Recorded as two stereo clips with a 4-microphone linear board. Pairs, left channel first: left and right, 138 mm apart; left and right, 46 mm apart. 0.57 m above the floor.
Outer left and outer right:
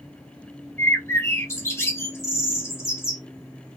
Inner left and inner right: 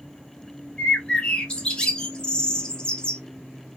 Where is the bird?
20° left (ahead or behind), 1.1 m.